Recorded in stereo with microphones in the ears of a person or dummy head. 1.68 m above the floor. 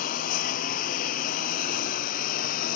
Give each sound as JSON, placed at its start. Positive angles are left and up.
{"t": 0.0, "sound": "a lawn mower", "side_deg": 55}